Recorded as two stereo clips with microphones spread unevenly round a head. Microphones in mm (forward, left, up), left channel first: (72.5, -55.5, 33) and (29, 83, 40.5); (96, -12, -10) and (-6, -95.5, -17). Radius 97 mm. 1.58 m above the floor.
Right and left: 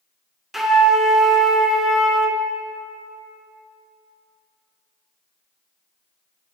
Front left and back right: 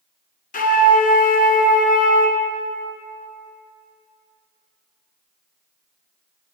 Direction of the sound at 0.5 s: 20° left.